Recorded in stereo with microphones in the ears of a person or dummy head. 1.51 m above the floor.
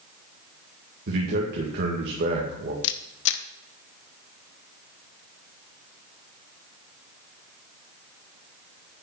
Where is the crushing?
No crushing in this recording.